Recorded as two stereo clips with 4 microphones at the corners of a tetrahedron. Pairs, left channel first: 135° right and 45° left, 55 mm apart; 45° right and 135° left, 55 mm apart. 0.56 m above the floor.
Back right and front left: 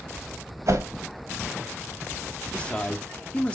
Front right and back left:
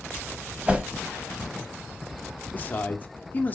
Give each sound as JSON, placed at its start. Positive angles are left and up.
{"t": 0.7, "sound": "a whoosh", "azimuth_deg": 70, "distance_m": 0.9}
{"t": 2.5, "sound": "a man speaking", "azimuth_deg": -75, "distance_m": 1.1}